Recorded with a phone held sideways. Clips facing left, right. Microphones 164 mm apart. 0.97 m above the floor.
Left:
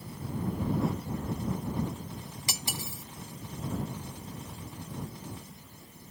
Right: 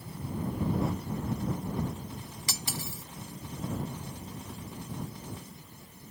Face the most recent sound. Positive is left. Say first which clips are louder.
# right 1 dB
turn(degrees=20)  # may be behind; listen again after turning